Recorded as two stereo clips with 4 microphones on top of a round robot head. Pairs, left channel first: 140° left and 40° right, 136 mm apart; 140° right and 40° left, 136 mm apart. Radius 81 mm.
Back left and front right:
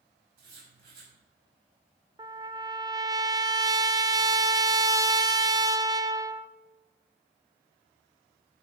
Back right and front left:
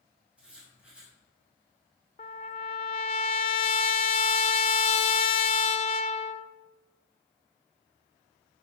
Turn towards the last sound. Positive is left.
turn(degrees=-100)